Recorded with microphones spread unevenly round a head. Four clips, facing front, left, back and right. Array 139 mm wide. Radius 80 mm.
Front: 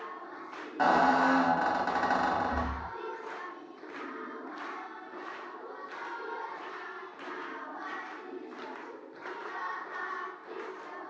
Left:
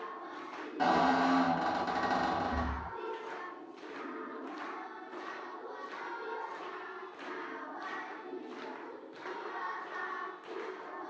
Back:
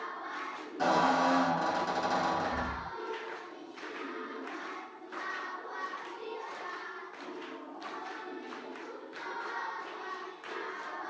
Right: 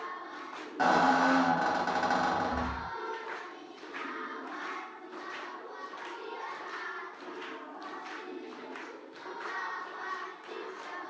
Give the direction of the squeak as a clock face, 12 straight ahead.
1 o'clock.